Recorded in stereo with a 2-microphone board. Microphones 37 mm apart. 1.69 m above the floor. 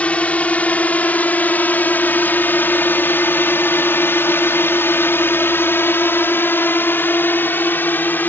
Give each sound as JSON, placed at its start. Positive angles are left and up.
{"t": 0.0, "sound": "a drone", "side_deg": 40}